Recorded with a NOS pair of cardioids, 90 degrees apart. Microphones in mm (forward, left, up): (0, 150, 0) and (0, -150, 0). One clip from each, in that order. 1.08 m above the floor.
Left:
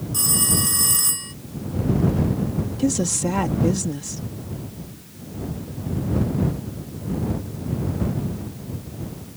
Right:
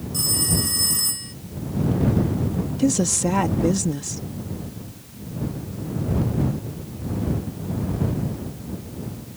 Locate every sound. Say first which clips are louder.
0.1 s a phone ringing: left 1 dB; 25° left
2.8 s a woman speaking: right 2 dB; 10° right